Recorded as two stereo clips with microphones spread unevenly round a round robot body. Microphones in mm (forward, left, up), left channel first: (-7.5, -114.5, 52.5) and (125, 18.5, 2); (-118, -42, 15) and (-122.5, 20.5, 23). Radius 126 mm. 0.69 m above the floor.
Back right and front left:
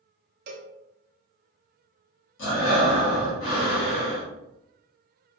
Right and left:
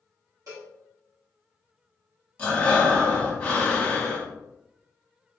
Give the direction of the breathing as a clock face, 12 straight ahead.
5 o'clock.